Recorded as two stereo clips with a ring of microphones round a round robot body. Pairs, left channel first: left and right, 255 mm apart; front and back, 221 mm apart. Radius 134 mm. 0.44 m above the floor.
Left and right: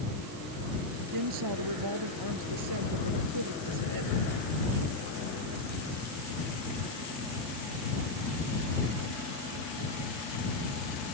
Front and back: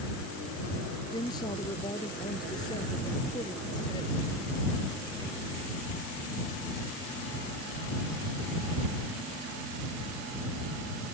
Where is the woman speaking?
75° right.